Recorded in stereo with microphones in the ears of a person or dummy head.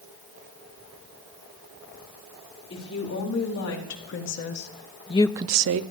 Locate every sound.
2.7 s a woman speaking: 70° left (ahead or behind), 4.5 m; by 5.8 s 75° right (ahead or behind), 0.8 m